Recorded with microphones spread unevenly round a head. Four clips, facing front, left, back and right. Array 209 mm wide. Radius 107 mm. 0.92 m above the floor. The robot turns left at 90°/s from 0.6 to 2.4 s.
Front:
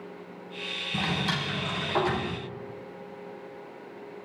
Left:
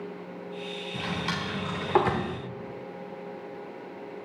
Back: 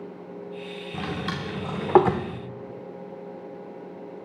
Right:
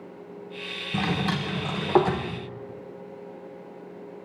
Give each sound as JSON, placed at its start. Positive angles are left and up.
{"t": 0.9, "sound": "a drawer", "azimuth_deg": -75, "distance_m": 0.9}